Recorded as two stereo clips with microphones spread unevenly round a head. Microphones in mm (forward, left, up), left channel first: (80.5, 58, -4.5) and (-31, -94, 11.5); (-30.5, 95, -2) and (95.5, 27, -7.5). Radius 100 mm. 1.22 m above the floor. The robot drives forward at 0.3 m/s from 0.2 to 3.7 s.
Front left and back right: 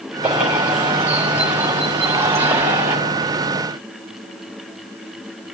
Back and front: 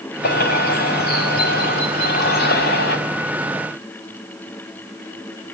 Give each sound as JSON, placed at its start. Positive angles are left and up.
{"t": 0.2, "sound": "a bird", "azimuth_deg": 150, "distance_m": 5.5}